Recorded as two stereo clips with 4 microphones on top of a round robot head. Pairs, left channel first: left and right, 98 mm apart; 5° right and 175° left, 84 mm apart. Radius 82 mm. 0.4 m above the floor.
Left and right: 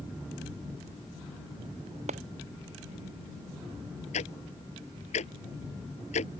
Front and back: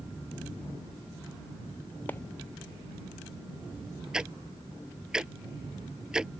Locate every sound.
2.1 s a clap: 75° right
4.1 s ticking: 95° left